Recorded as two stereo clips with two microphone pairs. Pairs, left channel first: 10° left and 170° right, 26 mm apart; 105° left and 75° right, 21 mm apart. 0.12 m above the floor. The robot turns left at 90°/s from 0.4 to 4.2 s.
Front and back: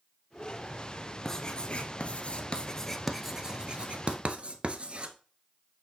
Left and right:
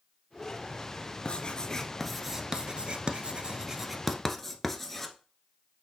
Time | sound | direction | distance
1.2 | writing | 85° left | 1.0 m